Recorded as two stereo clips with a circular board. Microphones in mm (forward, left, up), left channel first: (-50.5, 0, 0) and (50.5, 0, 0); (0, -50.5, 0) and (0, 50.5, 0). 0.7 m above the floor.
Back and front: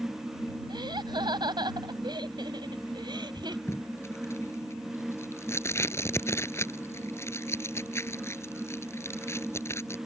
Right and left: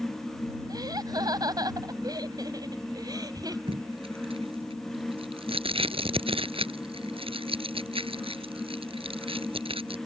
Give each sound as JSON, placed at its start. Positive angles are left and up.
{"t": 0.7, "sound": "laughter", "azimuth_deg": 40}
{"t": 3.7, "sound": "tape being pulled", "azimuth_deg": 115}